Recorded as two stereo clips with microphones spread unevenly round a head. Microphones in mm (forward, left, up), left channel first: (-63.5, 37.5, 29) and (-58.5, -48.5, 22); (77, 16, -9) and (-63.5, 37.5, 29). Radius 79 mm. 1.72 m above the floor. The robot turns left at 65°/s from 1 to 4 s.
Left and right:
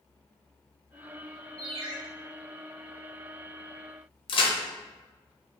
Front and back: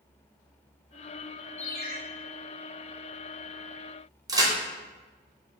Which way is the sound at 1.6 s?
35° right.